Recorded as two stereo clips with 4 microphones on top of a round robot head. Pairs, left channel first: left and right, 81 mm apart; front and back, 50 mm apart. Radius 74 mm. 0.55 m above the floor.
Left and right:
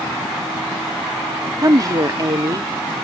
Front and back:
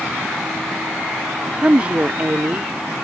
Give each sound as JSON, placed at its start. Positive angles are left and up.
{"t": 1.6, "sound": "a woman speaking", "azimuth_deg": -120}